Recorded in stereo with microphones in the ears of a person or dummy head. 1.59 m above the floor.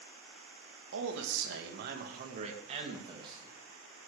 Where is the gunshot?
I don't hear a gunshot.